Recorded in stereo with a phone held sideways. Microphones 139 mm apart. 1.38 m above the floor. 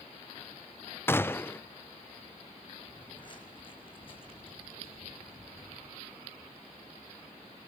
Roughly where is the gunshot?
Centre.